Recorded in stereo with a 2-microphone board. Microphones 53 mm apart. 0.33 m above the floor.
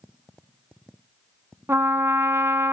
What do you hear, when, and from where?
1.7 s a trumpet: 55° right (ahead or behind), 0.8 m